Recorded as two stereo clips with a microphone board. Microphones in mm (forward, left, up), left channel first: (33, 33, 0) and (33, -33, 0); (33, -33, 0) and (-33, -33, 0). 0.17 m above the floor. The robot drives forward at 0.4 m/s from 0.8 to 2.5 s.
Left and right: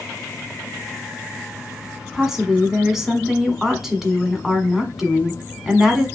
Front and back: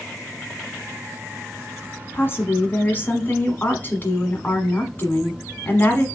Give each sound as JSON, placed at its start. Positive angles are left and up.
{"t": 2.1, "sound": "a woman speaking", "azimuth_deg": -10, "distance_m": 1.3}